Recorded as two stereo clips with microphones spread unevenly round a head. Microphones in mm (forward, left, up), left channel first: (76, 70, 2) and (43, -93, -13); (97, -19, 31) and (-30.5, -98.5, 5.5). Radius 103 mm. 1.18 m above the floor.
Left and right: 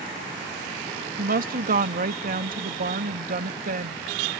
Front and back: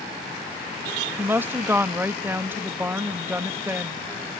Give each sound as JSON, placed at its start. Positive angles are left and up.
{"t": 1.2, "sound": "a woman speaking", "azimuth_deg": -70}